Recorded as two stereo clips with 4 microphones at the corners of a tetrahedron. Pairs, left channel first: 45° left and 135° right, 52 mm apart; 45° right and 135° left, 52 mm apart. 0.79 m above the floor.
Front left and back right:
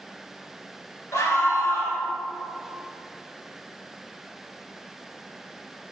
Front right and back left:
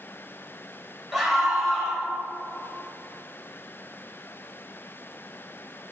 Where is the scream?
50° left, 3 m.